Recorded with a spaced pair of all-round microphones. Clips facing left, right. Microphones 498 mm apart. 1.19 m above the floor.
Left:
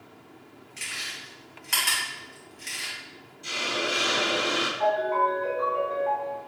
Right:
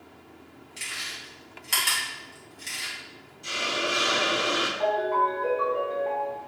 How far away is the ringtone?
About 2.0 m.